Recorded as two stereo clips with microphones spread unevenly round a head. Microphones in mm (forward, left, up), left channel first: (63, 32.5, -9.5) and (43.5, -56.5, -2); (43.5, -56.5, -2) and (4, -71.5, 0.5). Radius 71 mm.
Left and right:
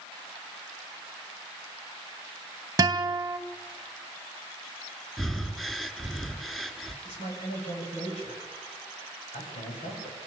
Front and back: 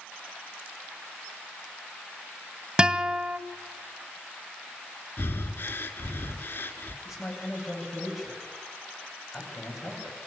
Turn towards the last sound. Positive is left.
turn(degrees=95)